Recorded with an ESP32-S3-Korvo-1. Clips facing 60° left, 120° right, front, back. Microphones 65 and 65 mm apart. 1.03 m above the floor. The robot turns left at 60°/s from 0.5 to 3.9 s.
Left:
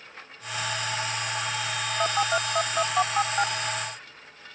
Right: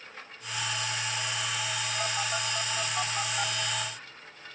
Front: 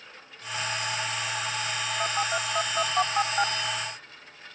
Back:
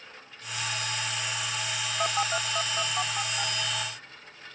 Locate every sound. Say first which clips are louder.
2.0 s a phone buzzing: left 10 dB, back 1 dB; 105° left; by 3.5 s 10° left